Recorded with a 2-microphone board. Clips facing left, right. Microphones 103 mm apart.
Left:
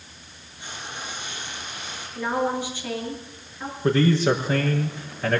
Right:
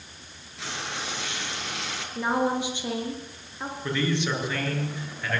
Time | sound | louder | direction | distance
0.6 | frying | right 2 dB | 80° right | 5 m
2.1 | a woman speaking | even | 20° right (ahead or behind) | 7 m
3.8 | a man speaking | left 8 dB | 40° left (ahead or behind) | 6 m